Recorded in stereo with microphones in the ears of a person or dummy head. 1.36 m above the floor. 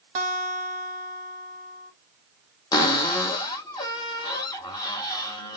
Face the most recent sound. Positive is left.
turn(degrees=20)  # may be behind; listen again after turning